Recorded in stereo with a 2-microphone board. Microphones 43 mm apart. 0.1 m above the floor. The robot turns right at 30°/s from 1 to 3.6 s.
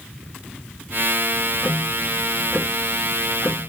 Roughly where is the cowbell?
No cowbell in this recording.